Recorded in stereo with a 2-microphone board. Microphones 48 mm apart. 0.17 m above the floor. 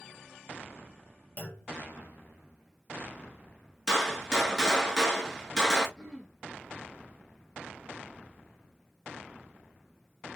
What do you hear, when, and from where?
1.4 s a clunk: 40° left (ahead or behind), 1.2 m
3.9 s a gunshot: 10° left (ahead or behind), 1.0 m
6.0 s throat clearing: 10° left (ahead or behind), 1.2 m